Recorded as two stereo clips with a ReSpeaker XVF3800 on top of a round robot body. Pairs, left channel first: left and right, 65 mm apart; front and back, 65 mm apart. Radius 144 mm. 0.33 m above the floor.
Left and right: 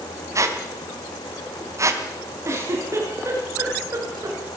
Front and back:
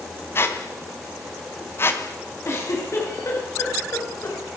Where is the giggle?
45° right, 8.5 m.